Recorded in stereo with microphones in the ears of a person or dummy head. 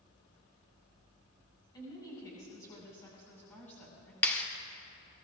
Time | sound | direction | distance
1.7 | a woman speaking | 20° left (ahead or behind) | 5.5 m
4.2 | a clap | 10° left (ahead or behind) | 1.2 m